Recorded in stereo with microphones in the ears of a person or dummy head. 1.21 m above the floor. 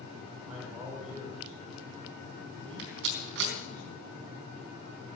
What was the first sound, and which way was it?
A man speaking, 10° right (ahead or behind).